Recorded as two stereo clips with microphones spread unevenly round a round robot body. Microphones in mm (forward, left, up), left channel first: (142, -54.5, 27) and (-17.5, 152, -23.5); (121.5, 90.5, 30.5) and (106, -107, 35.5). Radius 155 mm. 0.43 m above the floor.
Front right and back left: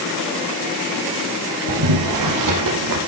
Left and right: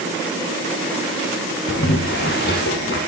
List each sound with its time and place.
1.7 s boiling: 145° left, 4.5 m